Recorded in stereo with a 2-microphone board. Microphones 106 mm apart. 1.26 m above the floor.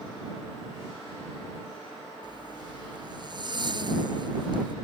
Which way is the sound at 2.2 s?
45° right (ahead or behind).